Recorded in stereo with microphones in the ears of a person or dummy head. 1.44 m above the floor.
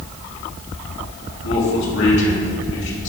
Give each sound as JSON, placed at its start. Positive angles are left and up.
{"t": 1.4, "sound": "a man speaking", "side_deg": 70, "distance_m": 2.5}